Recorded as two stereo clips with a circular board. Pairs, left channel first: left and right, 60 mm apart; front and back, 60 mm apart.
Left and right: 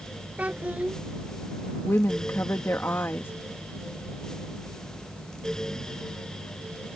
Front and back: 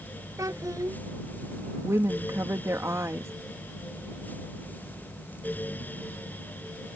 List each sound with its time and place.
0.4 s a child speaking: 155° right
1.8 s a woman speaking: 140° left